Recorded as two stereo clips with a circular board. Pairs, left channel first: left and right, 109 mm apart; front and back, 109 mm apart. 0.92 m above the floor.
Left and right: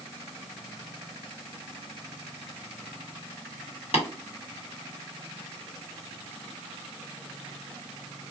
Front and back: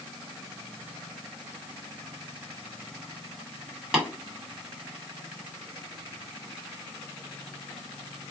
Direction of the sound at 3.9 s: 100° left.